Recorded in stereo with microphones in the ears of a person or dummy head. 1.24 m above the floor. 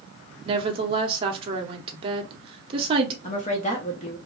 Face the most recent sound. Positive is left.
turn(degrees=35)  # may be behind; listen again after turning